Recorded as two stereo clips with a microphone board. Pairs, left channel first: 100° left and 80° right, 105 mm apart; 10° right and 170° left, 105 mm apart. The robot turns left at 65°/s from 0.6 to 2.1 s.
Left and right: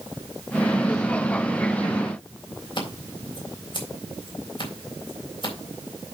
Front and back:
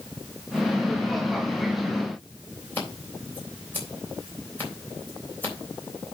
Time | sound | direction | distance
2.8 | scissors | 60° left | 3.5 m